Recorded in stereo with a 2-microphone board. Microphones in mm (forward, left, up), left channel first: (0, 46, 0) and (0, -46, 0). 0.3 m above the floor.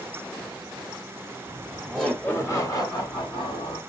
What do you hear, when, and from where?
1.5 s laughter: 25° right (ahead or behind), 1.0 m; by 3.8 s 60° left (ahead or behind), 2 m